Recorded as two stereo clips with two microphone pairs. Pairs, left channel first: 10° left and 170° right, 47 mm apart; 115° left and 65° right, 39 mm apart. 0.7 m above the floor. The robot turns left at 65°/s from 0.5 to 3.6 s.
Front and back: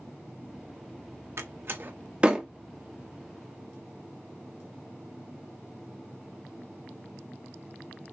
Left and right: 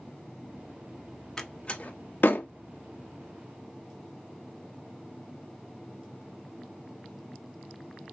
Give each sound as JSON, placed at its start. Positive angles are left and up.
{"t": 1.4, "sound": "a door slam", "azimuth_deg": 180, "distance_m": 0.6}